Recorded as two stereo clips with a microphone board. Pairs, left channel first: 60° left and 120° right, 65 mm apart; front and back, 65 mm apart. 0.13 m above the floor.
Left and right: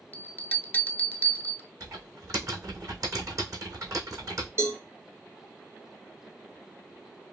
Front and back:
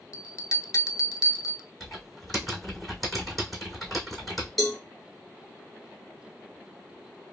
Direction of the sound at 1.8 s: 90° right.